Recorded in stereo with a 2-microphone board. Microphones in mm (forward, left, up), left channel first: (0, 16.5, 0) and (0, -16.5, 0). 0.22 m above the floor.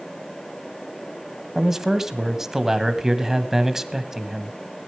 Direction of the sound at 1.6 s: 15° right (ahead or behind).